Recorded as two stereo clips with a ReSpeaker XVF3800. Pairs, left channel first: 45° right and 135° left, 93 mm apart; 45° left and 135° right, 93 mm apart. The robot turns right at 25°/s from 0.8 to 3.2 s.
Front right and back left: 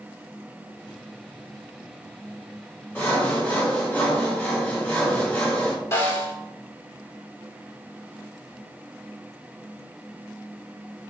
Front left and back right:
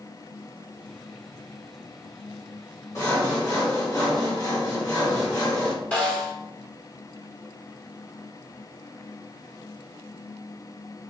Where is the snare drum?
20° right, 1.7 m.